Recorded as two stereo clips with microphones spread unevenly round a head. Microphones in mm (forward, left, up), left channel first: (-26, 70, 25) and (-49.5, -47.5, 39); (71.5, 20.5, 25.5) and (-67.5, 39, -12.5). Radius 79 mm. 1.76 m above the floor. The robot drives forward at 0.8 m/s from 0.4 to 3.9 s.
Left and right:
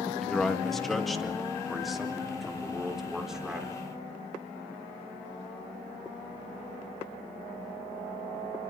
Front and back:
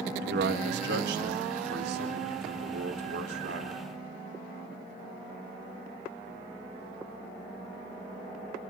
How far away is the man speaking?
About 1.9 m.